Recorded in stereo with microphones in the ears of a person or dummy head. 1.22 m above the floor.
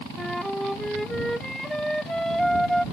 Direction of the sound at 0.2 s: Centre (ahead or behind).